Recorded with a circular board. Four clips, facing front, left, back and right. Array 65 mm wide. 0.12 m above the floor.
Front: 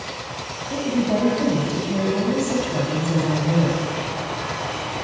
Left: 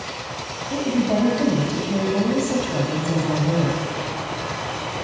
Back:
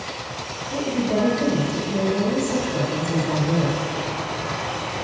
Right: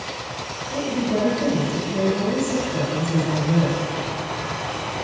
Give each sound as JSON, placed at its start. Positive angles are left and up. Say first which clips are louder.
{"t": 0.7, "sound": "a woman speaking", "louder": "left 2 dB, front 1 dB", "azimuth_deg": 65, "distance_m": 3.5}